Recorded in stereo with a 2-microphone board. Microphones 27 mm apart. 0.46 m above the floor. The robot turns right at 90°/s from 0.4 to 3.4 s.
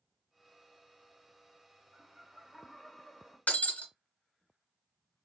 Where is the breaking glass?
85° left, 1.7 m.